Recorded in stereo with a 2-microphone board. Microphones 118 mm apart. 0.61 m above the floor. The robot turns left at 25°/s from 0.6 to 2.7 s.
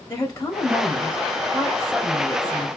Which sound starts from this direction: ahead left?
A woman speaking, at 0.1 s.